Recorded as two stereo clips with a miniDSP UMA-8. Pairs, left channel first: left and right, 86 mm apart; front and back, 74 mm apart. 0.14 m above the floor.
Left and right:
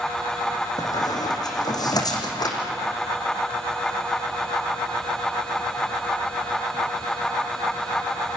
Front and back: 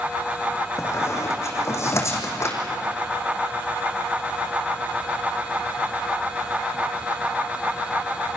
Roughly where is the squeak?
Ahead left.